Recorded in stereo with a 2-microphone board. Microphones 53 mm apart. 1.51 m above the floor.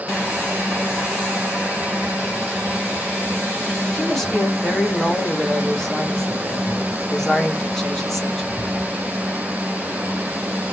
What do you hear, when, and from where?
3.9 s a woman speaking: 5° left (ahead or behind), 1.4 m